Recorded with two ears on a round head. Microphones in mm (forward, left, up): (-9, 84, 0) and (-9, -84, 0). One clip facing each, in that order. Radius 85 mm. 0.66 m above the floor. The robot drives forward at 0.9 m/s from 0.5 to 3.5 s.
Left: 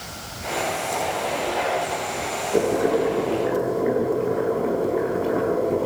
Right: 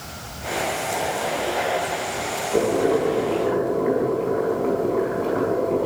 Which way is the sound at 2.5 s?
5° left (ahead or behind).